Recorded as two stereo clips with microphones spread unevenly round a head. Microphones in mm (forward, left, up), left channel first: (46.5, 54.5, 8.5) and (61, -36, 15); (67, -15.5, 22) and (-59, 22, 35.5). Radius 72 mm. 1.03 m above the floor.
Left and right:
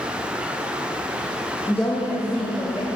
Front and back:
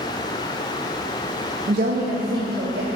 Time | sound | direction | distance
1.7 | a woman speaking | 170° left | 0.9 m